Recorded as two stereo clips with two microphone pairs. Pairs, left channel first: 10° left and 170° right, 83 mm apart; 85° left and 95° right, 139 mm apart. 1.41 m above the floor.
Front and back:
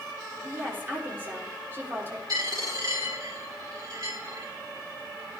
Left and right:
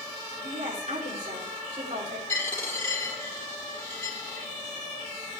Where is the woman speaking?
110° right, 3.5 m.